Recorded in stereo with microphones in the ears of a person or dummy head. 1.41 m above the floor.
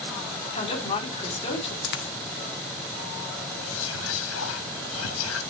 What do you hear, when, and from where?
0.5 s a woman speaking: 45° left (ahead or behind), 4.5 m
1.8 s a dropped coin: 50° left (ahead or behind), 1.5 m
3.6 s whispering: 85° left, 1.5 m